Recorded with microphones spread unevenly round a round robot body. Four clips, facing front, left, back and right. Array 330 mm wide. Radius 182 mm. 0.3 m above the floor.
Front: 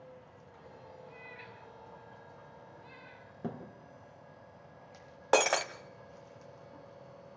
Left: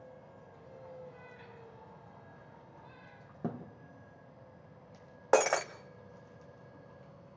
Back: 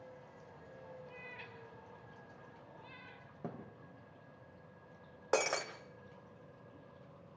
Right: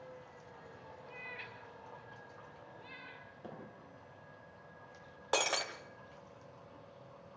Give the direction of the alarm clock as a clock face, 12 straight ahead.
No alarm clock in this recording.